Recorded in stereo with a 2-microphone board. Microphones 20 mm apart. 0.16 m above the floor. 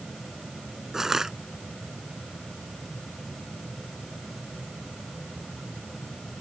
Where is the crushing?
30° right (ahead or behind).